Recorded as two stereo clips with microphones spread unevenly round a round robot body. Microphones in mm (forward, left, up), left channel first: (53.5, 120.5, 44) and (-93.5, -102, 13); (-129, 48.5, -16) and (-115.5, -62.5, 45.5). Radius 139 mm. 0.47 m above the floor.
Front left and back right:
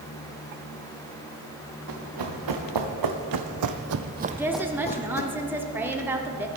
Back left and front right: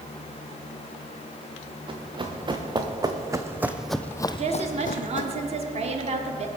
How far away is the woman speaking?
About 1.2 m.